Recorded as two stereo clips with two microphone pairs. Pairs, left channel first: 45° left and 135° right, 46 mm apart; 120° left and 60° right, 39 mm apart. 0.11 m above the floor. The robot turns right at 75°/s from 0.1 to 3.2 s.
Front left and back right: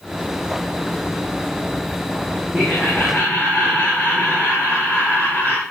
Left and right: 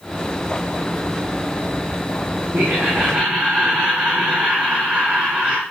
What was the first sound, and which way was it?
Laughter, 45° right.